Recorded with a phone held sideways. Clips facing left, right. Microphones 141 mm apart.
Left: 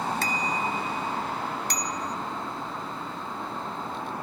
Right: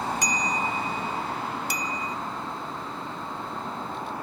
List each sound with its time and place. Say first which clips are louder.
0.2 s a bicycle bell: even; 15° right (ahead or behind); by 2.2 s 5° right (ahead or behind)